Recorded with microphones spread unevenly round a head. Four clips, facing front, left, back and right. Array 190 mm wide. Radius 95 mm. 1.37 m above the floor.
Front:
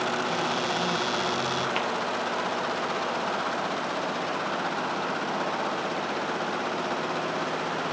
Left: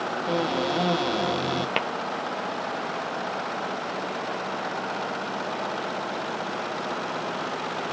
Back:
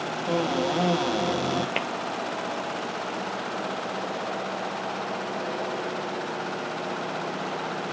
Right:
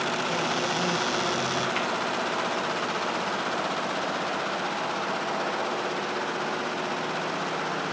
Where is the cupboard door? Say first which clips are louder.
Left 2 dB, back 3 dB; 145° left, 0.9 m.